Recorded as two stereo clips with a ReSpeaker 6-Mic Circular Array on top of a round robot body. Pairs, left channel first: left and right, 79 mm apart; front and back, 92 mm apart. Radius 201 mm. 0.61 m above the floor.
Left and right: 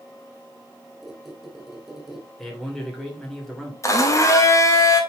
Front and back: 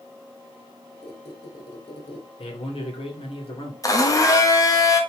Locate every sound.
1.0 s a squeak: 5° right, 1.5 m
2.4 s a man speaking: 5° left, 3 m
3.8 s a blender: 45° left, 1.8 m